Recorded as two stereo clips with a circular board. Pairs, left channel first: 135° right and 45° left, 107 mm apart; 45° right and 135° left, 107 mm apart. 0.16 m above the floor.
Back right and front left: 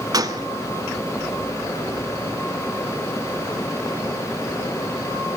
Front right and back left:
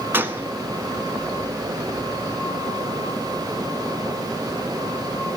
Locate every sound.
0.1 s a gunshot: 75° left, 0.8 m